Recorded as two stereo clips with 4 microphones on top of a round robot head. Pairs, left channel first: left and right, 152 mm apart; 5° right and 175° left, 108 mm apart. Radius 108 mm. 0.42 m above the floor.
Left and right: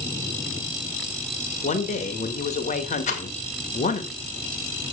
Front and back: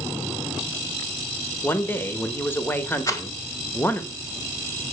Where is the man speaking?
60° left, 1.6 m.